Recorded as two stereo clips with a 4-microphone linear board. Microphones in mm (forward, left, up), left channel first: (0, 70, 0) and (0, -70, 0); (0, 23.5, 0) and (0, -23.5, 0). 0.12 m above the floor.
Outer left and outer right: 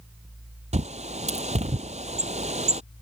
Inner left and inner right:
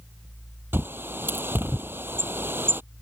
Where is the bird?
55° right (ahead or behind).